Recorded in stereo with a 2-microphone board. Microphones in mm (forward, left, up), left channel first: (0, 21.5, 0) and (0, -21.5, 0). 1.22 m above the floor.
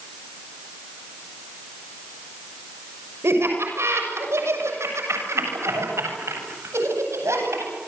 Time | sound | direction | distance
3.2 | laughter | 65° right (ahead or behind) | 6.5 m